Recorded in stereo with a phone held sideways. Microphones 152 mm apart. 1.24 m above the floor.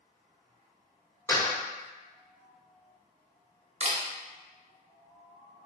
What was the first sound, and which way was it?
A door slam, 15° left (ahead or behind).